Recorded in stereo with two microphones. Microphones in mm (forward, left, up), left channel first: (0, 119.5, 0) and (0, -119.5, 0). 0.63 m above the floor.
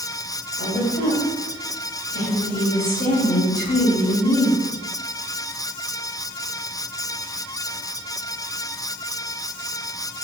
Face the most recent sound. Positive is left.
turn(degrees=40)  # may be behind; listen again after turning